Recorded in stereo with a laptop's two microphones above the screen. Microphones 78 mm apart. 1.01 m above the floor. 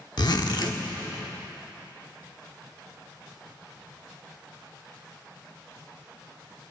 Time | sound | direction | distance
0.2 | a zipper | 60° left (ahead or behind) | 0.9 m